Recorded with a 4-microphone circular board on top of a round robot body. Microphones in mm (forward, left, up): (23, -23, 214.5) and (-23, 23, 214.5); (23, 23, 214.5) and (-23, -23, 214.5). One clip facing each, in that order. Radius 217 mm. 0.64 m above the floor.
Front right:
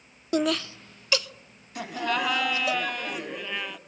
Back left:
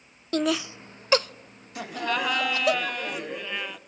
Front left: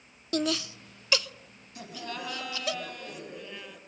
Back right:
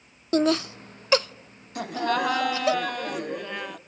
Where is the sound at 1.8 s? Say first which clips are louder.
Even, back right 13 dB; 135° right, 2 m.